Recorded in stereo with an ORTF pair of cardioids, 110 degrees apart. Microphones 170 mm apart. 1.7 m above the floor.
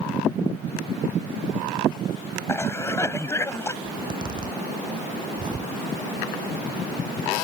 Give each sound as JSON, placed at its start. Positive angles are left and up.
{"t": 2.5, "sound": "a cough", "azimuth_deg": 15}
{"t": 3.8, "sound": "a zipper", "azimuth_deg": -25}